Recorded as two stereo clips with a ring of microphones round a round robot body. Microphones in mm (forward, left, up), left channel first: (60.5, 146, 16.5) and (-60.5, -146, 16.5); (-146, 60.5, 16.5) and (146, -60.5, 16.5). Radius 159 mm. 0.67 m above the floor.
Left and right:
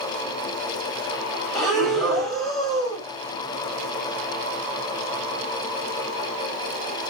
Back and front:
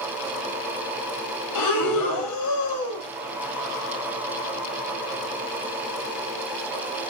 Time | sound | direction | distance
1.6 | breathing | 155° left | 1.7 m